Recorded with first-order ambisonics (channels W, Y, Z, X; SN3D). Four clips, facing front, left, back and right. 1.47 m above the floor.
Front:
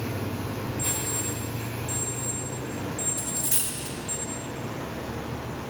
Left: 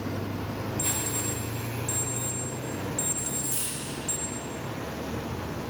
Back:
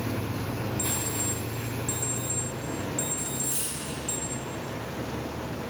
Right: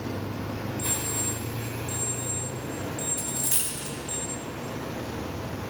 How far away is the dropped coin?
About 1.3 m.